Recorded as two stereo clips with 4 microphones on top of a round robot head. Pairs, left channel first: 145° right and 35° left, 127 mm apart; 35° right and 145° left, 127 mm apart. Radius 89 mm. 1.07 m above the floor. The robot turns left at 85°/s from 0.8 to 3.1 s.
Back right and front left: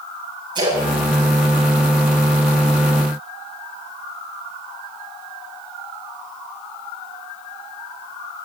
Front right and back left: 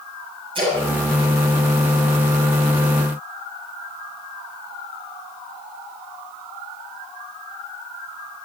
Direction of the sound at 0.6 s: 95° left.